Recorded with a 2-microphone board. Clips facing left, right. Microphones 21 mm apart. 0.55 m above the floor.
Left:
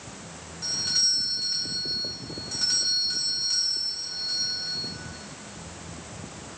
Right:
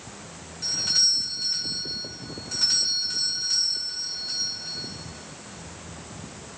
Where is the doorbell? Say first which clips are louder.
Right 2 dB; 5° right (ahead or behind), 2.5 m.